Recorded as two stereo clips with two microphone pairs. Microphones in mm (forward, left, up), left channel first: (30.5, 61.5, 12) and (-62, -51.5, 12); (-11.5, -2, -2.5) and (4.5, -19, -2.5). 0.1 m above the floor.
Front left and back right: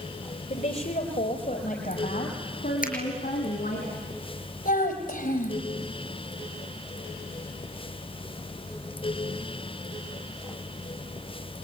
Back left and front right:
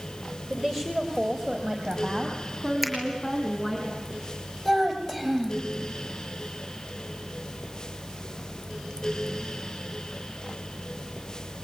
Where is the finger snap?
45° left, 5.5 m.